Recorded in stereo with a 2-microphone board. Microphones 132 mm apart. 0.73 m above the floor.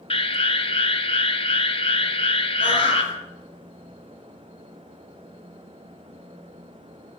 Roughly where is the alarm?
Left.